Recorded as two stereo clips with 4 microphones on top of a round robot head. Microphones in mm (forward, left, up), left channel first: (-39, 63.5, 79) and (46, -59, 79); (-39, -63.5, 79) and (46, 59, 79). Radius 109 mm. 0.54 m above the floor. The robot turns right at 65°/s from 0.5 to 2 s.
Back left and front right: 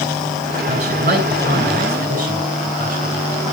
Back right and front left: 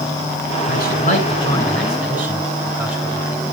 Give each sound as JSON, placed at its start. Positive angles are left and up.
{"t": 0.7, "sound": "a man speaking", "azimuth_deg": -115, "distance_m": 9.0}